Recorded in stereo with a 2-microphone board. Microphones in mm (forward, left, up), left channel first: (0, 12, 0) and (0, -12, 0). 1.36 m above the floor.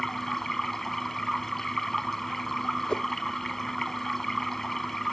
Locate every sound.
0.0 s running water: 10° left (ahead or behind)
2.9 s a whoosh: 35° left (ahead or behind)